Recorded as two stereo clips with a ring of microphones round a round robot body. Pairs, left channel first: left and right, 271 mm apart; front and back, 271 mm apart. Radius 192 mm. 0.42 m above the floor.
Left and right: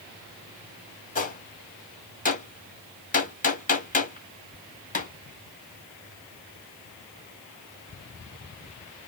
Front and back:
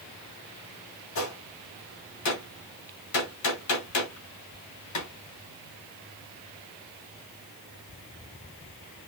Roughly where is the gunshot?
Ahead left.